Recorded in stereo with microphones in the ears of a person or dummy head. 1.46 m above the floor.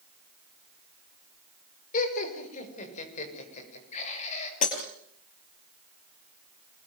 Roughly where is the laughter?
Left.